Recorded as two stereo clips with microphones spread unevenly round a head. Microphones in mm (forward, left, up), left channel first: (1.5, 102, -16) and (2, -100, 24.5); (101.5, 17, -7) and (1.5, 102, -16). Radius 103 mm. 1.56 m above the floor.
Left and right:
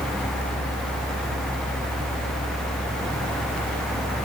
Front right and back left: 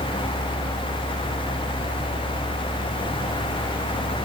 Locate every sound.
Only background noise.